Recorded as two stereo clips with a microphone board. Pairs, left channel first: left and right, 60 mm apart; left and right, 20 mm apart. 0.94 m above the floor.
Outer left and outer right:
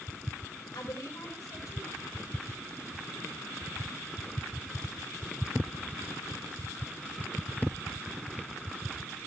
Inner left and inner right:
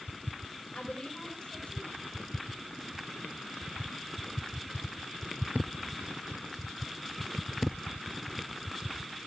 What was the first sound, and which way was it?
A woman speaking, 70° left (ahead or behind).